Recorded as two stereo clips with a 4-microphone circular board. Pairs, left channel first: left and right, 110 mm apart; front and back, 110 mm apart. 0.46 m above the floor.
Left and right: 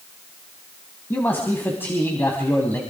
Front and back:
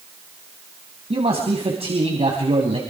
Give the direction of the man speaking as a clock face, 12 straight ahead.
7 o'clock.